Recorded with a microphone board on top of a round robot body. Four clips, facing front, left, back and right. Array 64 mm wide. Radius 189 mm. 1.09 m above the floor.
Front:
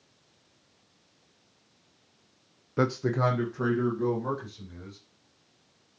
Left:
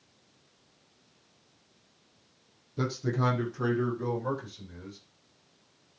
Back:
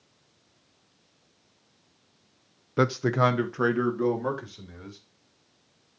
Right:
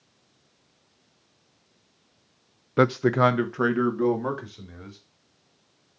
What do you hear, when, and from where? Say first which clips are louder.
2.8 s a man speaking: right 11 dB, back 3 dB; 100° right, 0.7 m; by 5.0 s 120° right, 3.5 m